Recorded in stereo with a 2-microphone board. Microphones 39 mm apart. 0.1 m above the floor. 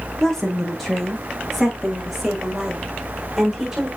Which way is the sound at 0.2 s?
10° left (ahead or behind).